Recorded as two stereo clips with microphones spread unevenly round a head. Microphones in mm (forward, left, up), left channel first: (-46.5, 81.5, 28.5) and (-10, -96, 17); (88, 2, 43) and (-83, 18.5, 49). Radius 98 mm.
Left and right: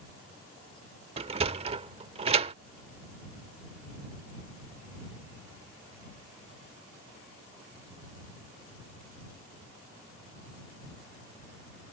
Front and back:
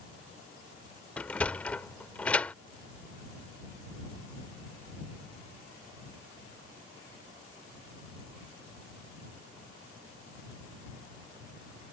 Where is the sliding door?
85° right.